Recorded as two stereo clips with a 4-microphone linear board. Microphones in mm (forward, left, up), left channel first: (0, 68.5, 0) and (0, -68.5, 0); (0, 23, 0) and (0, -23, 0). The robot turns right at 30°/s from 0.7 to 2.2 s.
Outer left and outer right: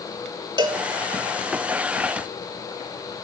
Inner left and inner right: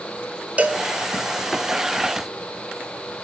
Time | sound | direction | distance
0.6 | a cowbell | 30° right (ahead or behind) | 0.5 m